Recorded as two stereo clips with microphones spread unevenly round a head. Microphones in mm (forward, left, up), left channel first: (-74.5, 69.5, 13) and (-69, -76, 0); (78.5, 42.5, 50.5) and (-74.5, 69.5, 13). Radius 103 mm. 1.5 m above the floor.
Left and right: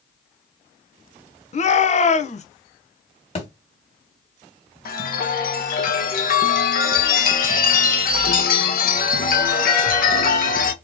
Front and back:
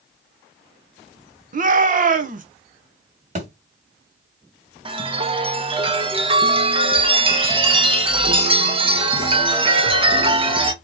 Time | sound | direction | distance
1.5 | a shout | 135° left | 1.2 m
3.4 | a thud | 125° left | 2 m
4.8 | a chime | 110° left | 1.4 m